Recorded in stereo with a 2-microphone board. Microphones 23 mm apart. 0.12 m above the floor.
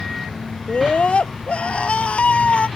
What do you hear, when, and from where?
0.7 s a scream: 55° left (ahead or behind); by 2.7 s 65° left (ahead or behind)